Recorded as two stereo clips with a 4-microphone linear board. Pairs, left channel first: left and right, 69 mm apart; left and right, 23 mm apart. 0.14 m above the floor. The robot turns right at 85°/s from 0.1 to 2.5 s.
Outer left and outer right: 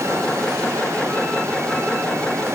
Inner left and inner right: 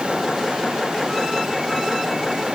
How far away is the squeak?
I don't hear a squeak.